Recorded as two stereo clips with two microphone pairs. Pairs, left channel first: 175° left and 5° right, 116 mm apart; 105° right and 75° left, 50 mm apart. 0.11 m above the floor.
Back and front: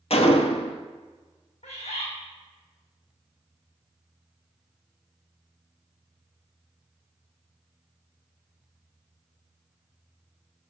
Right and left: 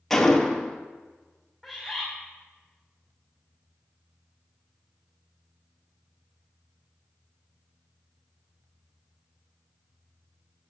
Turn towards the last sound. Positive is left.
turn(degrees=155)